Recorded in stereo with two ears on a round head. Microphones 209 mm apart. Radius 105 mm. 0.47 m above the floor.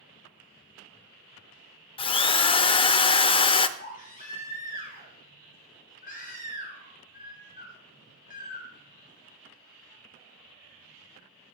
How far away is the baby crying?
About 3.5 m.